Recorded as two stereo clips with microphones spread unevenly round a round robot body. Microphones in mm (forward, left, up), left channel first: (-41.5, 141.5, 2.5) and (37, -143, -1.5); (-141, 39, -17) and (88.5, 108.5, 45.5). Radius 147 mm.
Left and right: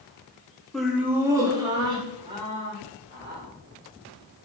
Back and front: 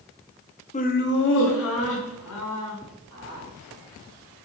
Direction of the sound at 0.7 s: 165° right.